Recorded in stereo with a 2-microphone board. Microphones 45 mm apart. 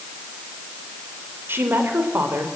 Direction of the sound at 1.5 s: 60° right (ahead or behind).